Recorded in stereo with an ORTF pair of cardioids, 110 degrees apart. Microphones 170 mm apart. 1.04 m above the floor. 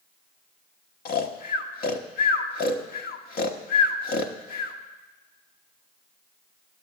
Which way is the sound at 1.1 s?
60° left.